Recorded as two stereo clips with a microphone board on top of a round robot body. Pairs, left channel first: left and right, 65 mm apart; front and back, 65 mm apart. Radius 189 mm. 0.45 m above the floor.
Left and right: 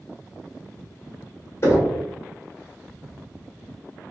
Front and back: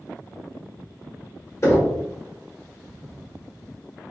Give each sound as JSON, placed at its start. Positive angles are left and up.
{"t": 1.6, "sound": "knocking", "azimuth_deg": 45, "distance_m": 1.7}